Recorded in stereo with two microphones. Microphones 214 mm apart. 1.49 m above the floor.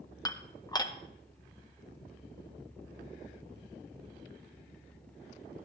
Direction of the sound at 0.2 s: 20° left (ahead or behind).